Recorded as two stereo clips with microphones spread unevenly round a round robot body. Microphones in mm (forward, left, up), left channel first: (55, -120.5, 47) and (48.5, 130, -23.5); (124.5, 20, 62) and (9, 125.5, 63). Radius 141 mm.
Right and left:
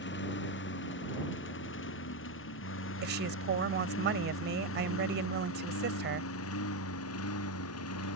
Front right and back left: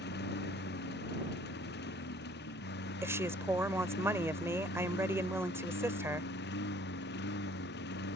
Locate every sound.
0.0 s a lawn mower: 45° right; by 8.2 s 60° right
3.0 s a woman speaking: 65° left